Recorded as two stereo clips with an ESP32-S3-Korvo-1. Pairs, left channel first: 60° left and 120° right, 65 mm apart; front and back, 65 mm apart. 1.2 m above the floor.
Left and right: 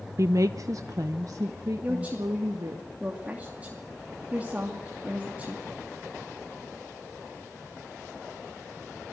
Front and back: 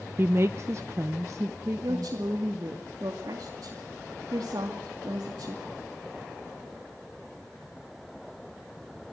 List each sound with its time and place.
0.2 s a woman speaking: 135° right, 0.6 m; by 2.8 s 145° right, 2 m
1.8 s a woman speaking: 175° left, 2.5 m